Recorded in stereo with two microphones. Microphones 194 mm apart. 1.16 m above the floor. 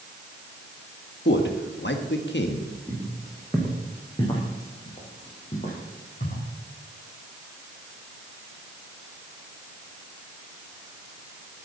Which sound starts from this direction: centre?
Footsteps, at 2.9 s.